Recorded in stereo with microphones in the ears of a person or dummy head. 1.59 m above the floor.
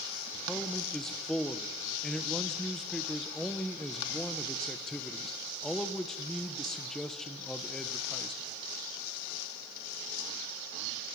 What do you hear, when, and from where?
0.5 s a man speaking: centre (ahead or behind), 1.2 m